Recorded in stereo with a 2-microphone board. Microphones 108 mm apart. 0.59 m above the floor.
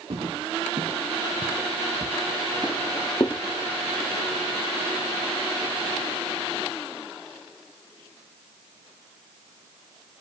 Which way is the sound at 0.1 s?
65° right (ahead or behind).